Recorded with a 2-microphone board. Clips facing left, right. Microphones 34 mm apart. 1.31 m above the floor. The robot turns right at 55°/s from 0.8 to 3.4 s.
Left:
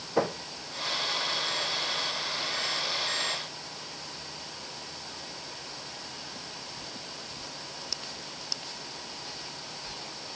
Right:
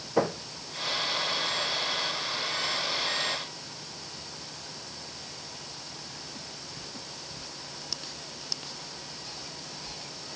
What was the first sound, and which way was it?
Only background noise.